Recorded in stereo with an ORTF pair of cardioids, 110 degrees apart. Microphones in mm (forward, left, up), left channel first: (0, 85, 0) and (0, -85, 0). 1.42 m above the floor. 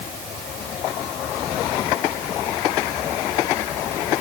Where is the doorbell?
No doorbell in this recording.